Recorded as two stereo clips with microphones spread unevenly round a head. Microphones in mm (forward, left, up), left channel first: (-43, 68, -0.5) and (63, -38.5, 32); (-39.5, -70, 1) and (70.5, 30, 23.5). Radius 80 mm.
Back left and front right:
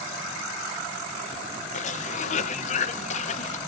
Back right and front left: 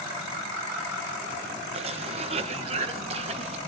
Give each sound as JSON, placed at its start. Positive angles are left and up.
{"t": 1.7, "sound": "a cough", "azimuth_deg": 100, "distance_m": 1.8}